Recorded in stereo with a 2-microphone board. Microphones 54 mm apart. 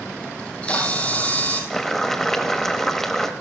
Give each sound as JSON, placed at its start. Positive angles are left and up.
{"t": 0.4, "sound": "a camera shutter", "side_deg": 25, "distance_m": 2.0}
{"t": 1.7, "sound": "boiling", "side_deg": 5, "distance_m": 0.9}